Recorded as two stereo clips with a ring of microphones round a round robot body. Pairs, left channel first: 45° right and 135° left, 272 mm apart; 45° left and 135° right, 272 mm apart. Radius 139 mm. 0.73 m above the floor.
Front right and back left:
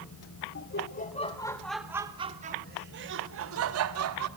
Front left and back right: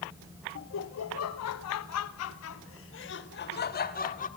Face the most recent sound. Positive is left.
turn(degrees=105)